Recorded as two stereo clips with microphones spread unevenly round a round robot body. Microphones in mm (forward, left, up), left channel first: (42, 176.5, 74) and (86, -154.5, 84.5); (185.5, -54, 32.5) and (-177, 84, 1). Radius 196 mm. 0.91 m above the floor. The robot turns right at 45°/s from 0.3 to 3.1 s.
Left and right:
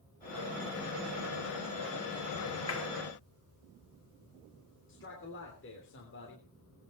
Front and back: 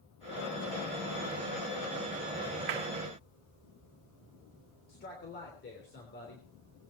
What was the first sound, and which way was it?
A clap, 150° left.